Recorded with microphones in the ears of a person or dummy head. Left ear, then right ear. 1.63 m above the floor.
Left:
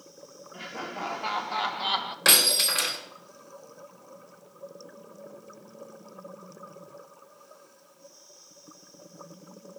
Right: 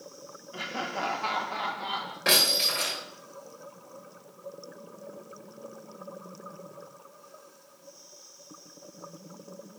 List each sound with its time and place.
0.5 s laughter: 35° right (ahead or behind), 0.9 m; by 2.1 s 50° left (ahead or behind), 0.8 m
2.2 s breaking glass: 35° left (ahead or behind), 1.6 m